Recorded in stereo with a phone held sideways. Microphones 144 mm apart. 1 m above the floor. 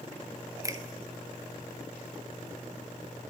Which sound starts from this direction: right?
A finger snap, at 0.6 s.